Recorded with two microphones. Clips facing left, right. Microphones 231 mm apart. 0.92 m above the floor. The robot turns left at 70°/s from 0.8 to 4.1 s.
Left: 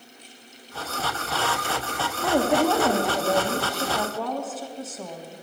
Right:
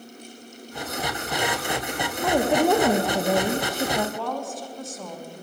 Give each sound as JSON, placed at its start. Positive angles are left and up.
{"t": 2.2, "sound": "a woman speaking", "azimuth_deg": -5, "distance_m": 0.9}
{"t": 4.2, "sound": "a woman speaking", "side_deg": 5, "distance_m": 1.2}